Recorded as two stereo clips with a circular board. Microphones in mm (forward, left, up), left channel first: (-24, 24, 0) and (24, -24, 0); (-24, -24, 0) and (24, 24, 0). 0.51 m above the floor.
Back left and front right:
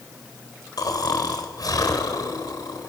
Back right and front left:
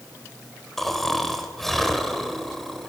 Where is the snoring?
140° left, 2.5 m.